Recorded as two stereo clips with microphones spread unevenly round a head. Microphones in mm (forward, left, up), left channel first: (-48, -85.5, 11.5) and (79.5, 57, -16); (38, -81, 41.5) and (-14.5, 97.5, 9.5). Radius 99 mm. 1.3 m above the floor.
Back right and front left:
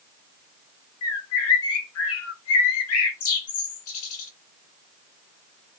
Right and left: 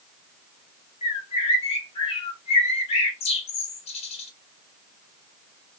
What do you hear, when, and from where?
1.0 s a bird: 130° right, 0.7 m